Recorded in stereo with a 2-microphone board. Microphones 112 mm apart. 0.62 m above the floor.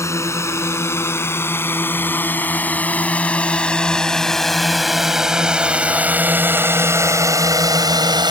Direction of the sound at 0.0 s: 25° left (ahead or behind).